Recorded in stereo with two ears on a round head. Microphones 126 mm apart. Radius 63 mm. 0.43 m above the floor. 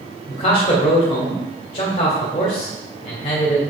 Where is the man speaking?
45° left (ahead or behind), 1.8 m.